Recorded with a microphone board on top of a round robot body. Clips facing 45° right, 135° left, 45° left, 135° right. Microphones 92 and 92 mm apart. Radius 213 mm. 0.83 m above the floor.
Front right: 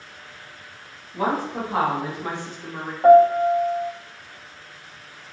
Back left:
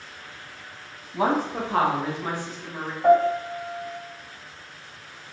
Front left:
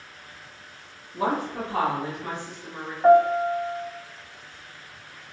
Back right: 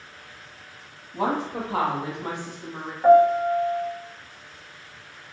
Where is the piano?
50° right, 1.0 m.